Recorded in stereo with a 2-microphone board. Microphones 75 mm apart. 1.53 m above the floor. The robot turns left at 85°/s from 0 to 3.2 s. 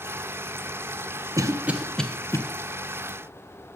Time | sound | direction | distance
1.4 | a cough | 45° right (ahead or behind) | 1.0 m